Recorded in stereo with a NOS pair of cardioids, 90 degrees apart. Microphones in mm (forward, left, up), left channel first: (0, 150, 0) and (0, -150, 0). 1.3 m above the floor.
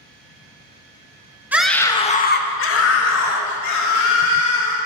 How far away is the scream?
About 1.6 m.